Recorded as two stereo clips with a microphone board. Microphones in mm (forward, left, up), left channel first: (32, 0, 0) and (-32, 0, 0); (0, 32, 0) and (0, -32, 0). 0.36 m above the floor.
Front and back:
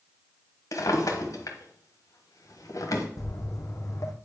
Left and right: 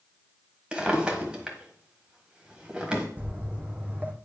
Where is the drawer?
15° right, 1.4 m.